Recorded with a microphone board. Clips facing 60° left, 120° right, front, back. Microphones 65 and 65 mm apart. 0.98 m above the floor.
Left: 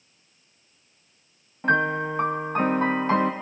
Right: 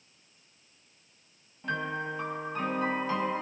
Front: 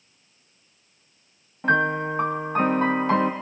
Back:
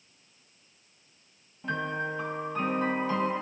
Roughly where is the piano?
Ahead left.